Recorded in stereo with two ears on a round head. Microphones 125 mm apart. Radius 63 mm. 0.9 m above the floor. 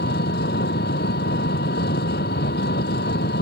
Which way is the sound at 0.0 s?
80° left.